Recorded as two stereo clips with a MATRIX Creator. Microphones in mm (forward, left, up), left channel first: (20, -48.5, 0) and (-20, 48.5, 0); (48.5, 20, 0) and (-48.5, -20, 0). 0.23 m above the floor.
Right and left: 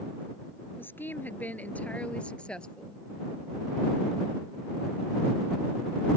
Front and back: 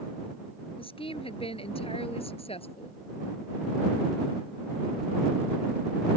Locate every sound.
0.8 s a woman speaking: straight ahead; by 3.0 s 15° left